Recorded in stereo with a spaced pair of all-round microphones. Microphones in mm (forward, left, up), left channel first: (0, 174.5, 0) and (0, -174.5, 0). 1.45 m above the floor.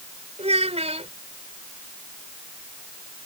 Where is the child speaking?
20° right (ahead or behind).